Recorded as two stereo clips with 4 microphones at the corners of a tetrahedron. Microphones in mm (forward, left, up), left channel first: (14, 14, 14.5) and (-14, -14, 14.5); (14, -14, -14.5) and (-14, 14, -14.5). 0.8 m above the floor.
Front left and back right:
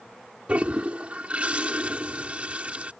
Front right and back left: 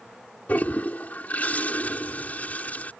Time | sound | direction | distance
0.5 | a toilet flushing | 85° right | ?